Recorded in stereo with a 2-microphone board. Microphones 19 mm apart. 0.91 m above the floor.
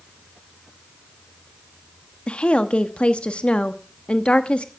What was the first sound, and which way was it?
A woman speaking, 75° left (ahead or behind).